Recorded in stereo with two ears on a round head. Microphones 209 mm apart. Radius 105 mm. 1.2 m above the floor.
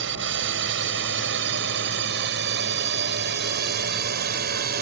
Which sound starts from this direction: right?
A drone, at 0.0 s.